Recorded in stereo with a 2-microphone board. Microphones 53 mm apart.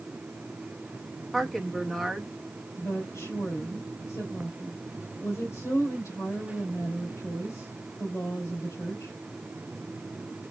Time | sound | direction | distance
1.3 | a woman speaking | 5° left (ahead or behind) | 1.1 m
2.8 | a woman speaking | 75° left (ahead or behind) | 2.5 m